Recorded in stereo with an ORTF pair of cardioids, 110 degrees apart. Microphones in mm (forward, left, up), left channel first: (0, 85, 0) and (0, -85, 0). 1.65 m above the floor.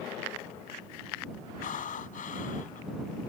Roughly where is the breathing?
Ahead left.